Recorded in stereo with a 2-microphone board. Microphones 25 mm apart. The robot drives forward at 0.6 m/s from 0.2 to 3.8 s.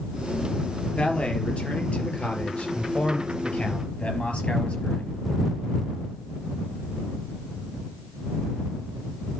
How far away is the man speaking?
About 3.5 m.